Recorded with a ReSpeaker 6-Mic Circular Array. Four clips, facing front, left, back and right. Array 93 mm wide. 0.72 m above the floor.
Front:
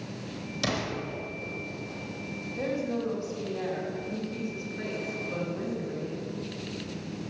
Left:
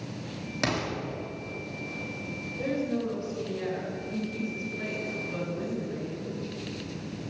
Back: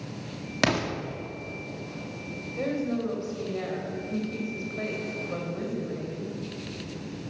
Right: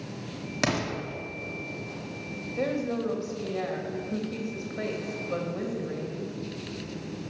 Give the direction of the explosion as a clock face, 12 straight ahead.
6 o'clock.